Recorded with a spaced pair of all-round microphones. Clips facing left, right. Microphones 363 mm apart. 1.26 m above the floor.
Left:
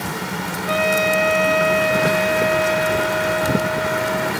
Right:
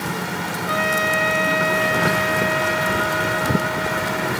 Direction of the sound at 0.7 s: 55° right (ahead or behind).